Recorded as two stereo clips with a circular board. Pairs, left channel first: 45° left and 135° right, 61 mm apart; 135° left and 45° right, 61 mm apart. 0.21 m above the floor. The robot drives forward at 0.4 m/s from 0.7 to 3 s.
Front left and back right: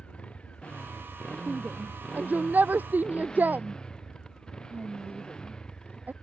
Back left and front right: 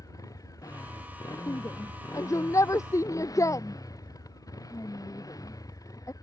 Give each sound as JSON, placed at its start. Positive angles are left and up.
{"t": 0.0, "sound": "a motorcycle", "azimuth_deg": 115}
{"t": 1.5, "sound": "a shout", "azimuth_deg": 165}